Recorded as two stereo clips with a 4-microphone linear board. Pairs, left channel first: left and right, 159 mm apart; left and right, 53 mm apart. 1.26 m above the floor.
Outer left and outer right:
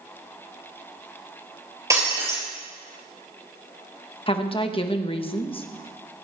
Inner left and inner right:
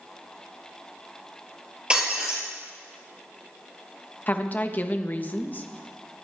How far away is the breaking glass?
About 5 m.